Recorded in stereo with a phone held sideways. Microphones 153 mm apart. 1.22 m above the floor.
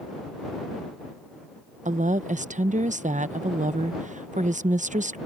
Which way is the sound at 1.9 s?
55° right (ahead or behind).